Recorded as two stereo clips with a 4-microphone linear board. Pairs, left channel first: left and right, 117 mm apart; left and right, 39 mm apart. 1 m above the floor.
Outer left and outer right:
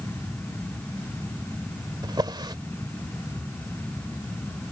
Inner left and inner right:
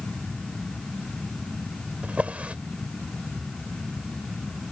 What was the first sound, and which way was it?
A drawer, 40° right (ahead or behind).